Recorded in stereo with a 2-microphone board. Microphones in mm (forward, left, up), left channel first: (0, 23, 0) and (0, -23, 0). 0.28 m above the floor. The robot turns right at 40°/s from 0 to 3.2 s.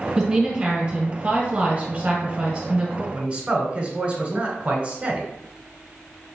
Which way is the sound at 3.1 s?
25° right (ahead or behind).